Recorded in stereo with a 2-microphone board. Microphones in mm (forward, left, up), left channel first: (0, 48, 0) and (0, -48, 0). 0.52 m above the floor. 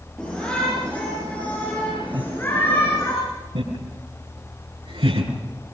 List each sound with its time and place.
0.2 s a shout: 5° left (ahead or behind), 9.5 m; by 3.1 s 25° left (ahead or behind), 6.5 m
2.1 s laughter: 50° right (ahead or behind), 3.5 m
3.5 s laughter: 80° right, 6.5 m